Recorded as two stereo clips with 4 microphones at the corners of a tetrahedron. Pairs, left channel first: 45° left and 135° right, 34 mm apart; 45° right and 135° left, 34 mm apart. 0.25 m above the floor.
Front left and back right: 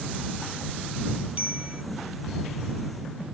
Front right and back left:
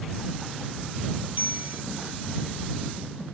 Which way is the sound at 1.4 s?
175° left.